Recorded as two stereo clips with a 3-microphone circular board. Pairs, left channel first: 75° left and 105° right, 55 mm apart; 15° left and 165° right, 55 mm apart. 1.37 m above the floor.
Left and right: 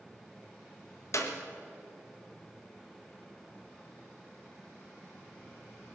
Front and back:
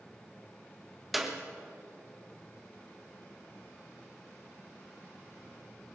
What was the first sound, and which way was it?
A clap, 110° left.